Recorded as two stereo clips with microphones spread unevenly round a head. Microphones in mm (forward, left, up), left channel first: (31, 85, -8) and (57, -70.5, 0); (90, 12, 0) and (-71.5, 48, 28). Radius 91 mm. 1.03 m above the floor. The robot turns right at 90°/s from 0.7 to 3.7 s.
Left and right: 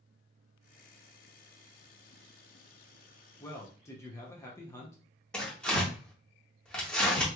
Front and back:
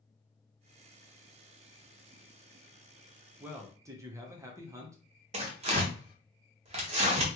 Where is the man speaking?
75° left, 0.7 m; by 5.0 s 100° left, 0.7 m.